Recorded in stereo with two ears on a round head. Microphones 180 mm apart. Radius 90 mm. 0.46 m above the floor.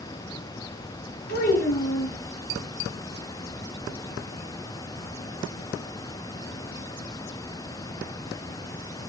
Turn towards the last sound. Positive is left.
turn(degrees=50)  # may be behind; listen again after turning